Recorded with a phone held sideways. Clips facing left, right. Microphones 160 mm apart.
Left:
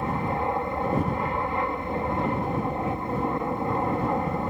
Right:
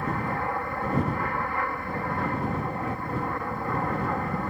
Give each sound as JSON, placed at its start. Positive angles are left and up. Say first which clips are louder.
{"t": 0.0, "sound": "an aircraft", "louder": "left 2 dB", "side_deg": 20}